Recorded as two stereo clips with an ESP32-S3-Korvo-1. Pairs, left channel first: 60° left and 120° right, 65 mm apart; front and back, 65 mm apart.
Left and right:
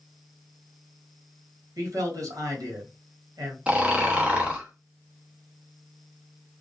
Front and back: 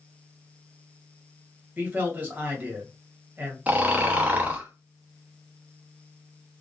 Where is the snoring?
165° right, 0.6 m.